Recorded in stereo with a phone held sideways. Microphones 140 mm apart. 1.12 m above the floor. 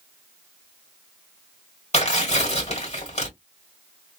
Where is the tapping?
I don't hear tapping.